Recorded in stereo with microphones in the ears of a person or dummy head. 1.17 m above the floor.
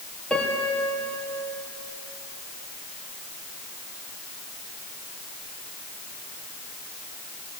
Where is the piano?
5° left (ahead or behind), 3.5 m.